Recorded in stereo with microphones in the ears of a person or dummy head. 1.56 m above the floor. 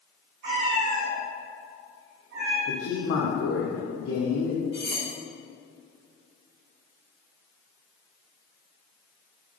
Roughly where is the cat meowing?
Right.